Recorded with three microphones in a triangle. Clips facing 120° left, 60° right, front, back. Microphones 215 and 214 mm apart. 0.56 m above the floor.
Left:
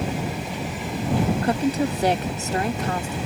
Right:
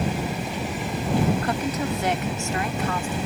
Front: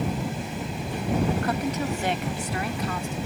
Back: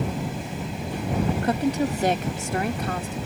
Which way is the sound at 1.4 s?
145° left.